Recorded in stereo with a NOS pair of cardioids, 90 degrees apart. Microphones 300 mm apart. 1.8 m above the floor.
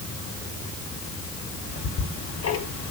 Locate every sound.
1.7 s ticking: 60° left, 4 m